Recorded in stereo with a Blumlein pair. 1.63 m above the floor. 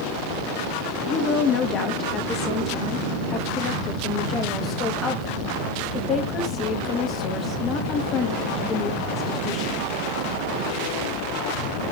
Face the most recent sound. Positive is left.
turn(degrees=30)